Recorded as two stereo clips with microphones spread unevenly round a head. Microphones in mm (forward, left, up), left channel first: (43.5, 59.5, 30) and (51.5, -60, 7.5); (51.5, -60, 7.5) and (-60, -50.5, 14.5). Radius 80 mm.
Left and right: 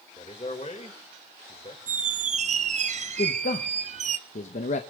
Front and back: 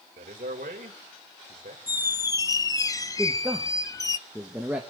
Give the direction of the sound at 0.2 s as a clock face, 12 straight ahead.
7 o'clock.